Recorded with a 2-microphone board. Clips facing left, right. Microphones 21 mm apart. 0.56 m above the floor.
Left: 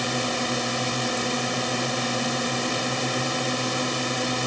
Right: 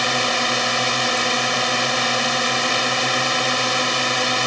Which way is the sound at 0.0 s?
30° right (ahead or behind).